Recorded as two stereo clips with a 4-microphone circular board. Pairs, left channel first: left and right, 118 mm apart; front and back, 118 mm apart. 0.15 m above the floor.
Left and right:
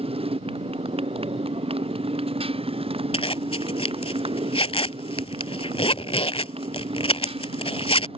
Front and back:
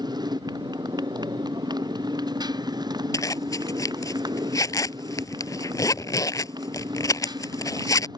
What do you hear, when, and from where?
0.0 s a motorcycle: 125° right
3.1 s a zipper: 60° left